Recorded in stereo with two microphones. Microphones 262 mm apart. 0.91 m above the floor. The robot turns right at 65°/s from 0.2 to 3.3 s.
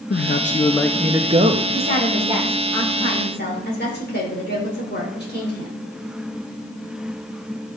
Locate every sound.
0.1 s a man speaking: 130° left, 0.6 m; by 1.6 s 135° right, 0.6 m
1.7 s a woman speaking: 60° right, 3.5 m; by 5.8 s 45° left, 3.5 m